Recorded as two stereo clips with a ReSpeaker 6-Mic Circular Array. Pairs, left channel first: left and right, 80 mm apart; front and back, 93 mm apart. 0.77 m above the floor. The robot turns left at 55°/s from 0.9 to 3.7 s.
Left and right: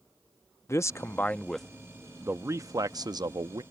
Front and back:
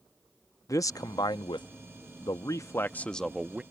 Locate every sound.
0.7 s a man speaking: 45° left; by 3.6 s 105° right